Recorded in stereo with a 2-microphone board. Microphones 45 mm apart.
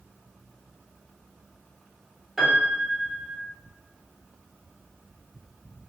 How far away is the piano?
About 1.0 m.